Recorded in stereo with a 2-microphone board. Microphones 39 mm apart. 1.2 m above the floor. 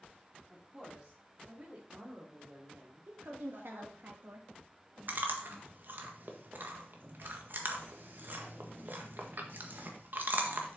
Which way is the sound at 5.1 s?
60° right (ahead or behind).